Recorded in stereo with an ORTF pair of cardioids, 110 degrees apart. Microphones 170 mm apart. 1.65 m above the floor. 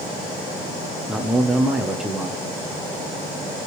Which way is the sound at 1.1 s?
5° right.